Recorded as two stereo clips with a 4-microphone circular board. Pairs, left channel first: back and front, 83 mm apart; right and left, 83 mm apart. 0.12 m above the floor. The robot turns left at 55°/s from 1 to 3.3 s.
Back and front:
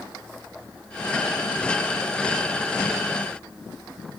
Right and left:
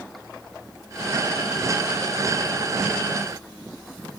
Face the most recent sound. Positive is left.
No sound to turn to.